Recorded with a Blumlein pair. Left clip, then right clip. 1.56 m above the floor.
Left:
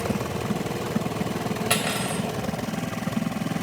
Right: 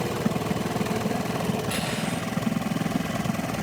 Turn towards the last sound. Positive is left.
turn(degrees=30)